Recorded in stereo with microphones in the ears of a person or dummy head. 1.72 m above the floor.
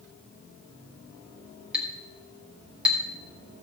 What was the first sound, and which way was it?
A clink, 10° right (ahead or behind).